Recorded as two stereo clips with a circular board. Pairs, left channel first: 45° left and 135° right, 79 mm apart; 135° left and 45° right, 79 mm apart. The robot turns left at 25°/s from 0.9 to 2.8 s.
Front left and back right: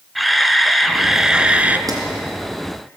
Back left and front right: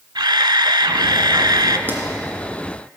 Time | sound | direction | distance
0.1 | a camera shutter | 45° right | 0.7 m
1.9 | a pop | 105° right | 2.5 m